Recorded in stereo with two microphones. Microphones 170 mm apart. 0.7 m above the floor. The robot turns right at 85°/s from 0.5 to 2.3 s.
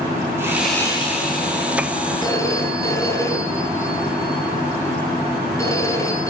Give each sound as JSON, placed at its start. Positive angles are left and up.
{"t": 0.4, "sound": "sawing", "azimuth_deg": -15, "distance_m": 7.0}
{"t": 2.2, "sound": "a phone ringing", "side_deg": 25, "distance_m": 5.5}